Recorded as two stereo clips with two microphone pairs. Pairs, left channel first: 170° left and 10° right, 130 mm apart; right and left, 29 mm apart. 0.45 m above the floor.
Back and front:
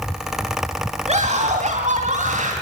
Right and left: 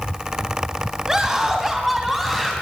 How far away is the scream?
About 2.5 m.